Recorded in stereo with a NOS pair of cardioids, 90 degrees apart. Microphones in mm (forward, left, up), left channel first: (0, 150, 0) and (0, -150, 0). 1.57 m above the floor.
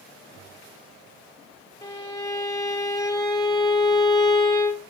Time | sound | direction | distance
1.8 | a violin | 15° left | 0.8 m